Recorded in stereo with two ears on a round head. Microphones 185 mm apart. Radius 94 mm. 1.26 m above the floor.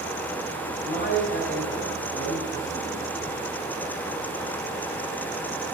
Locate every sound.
0.8 s a man speaking: 40° left (ahead or behind), 7 m